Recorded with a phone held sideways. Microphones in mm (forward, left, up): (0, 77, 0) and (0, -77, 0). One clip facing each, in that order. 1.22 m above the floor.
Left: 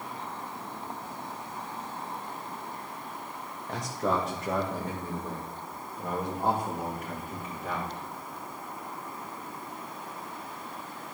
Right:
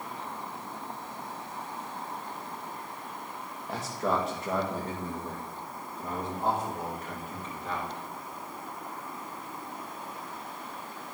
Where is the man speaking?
5° right (ahead or behind), 1.3 m; by 7.9 s 10° left (ahead or behind), 3.5 m.